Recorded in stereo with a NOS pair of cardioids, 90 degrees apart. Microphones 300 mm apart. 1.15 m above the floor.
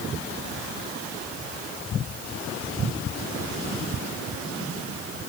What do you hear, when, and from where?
Only background noise.